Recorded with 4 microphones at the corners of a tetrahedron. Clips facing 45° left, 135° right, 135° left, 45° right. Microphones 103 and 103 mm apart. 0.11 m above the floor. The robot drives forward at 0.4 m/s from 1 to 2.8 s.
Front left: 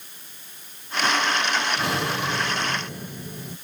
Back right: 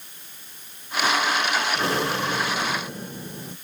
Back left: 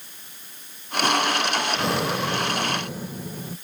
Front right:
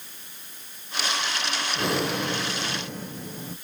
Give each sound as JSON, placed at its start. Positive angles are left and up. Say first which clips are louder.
{"t": 1.8, "sound": "breathing", "louder": "back right 1 dB, back left 2 dB", "azimuth_deg": -130, "distance_m": 1.6}